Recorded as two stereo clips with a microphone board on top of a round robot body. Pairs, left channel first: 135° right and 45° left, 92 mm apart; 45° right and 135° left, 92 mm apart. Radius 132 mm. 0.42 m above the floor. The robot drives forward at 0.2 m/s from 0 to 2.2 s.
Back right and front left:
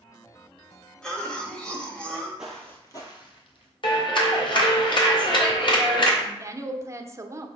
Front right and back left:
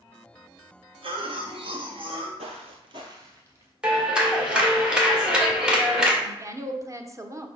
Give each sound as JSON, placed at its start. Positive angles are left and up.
{"t": 1.0, "sound": "a cough", "azimuth_deg": 145, "distance_m": 2.0}
{"t": 2.4, "sound": "footsteps", "azimuth_deg": 125, "distance_m": 0.6}
{"t": 3.8, "sound": "a clap", "azimuth_deg": -145, "distance_m": 2.0}
{"t": 6.2, "sound": "a woman speaking", "azimuth_deg": 95, "distance_m": 1.0}